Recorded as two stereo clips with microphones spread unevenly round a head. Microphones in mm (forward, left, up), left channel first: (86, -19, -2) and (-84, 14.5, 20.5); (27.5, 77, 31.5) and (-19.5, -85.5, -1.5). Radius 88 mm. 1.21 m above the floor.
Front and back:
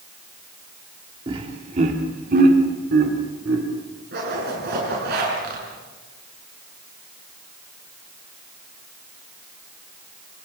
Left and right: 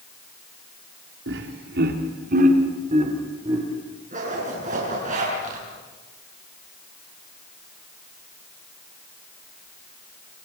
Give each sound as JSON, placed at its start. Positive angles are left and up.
{"t": 1.3, "sound": "laughter", "azimuth_deg": -125, "distance_m": 2.5}
{"t": 4.1, "sound": "a zipper", "azimuth_deg": -155, "distance_m": 7.5}